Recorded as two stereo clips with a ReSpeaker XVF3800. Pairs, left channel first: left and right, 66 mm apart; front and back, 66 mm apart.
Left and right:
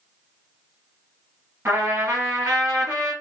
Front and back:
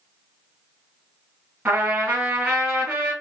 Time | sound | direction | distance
1.6 | a trumpet | 130° right | 2.5 m